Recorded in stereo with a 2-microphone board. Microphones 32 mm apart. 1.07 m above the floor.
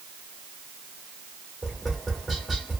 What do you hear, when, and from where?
1.6 s tapping: centre (ahead or behind), 1.3 m